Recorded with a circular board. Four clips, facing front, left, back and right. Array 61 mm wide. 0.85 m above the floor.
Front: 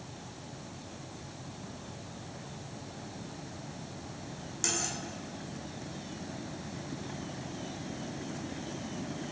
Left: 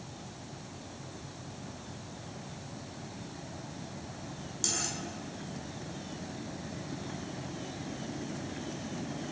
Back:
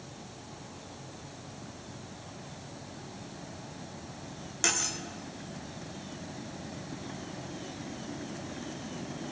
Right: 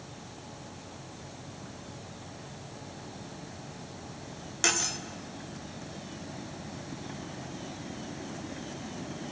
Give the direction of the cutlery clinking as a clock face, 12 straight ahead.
4 o'clock.